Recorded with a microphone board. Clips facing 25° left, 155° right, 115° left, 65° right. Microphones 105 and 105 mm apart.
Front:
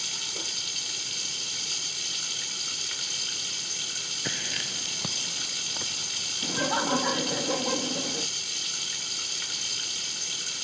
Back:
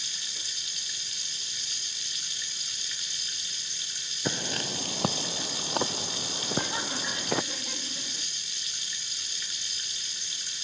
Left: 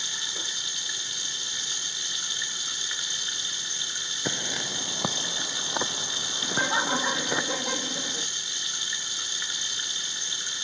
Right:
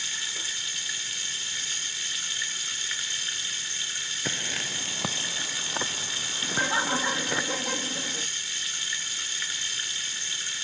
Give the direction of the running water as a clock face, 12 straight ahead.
11 o'clock.